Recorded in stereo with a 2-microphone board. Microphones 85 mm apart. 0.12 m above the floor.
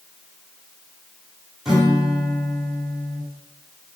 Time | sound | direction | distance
1.6 | a guitar | 5° right (ahead or behind) | 6 m